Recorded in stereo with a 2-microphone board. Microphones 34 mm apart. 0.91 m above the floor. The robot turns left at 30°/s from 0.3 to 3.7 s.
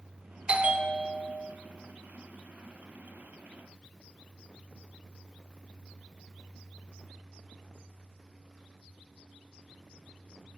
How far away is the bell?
About 0.9 m.